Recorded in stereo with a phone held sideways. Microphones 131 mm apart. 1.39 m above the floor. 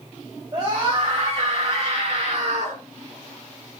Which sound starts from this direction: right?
A scream, at 0.5 s.